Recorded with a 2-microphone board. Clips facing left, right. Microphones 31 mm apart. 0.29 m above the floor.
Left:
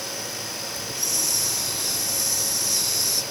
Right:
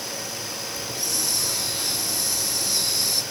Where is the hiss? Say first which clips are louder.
Even; 35° right (ahead or behind), 4.5 m.